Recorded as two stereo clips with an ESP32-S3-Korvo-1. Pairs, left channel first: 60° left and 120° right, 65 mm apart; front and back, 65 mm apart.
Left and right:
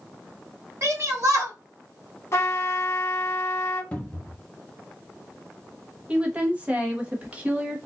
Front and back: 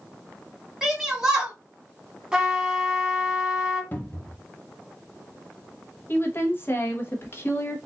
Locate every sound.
0.8 s a shout: 95° right, 1.4 m
2.3 s a trumpet: 105° left, 1.1 m
3.9 s a cupboard door: 15° left, 0.8 m
6.1 s a woman speaking: 50° right, 0.9 m